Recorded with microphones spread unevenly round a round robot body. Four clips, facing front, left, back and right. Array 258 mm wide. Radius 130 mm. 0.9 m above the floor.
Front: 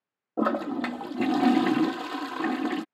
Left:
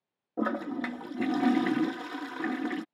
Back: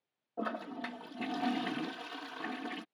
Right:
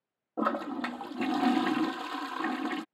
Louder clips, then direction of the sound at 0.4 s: Even, front 12 dB; 15° left.